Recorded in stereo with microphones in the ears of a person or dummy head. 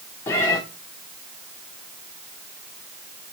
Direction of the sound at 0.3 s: 15° left (ahead or behind).